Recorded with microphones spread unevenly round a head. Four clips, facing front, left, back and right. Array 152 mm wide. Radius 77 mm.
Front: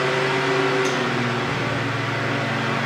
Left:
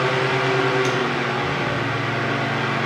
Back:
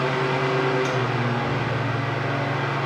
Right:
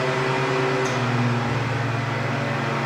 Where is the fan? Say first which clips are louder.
Left 2 dB, front 2 dB; 65° left, 0.9 m.